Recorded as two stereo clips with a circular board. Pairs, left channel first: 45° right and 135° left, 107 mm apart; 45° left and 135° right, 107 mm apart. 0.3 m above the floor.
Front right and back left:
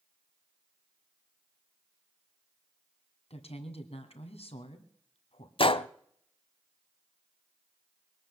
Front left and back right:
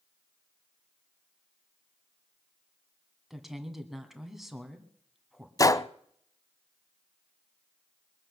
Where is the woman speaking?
45° right, 2 m.